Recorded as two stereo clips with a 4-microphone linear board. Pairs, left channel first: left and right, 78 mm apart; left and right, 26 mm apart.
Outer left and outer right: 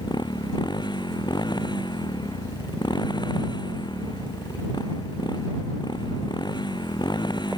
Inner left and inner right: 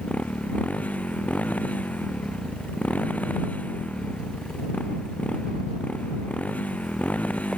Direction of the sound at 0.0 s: 70° left (ahead or behind).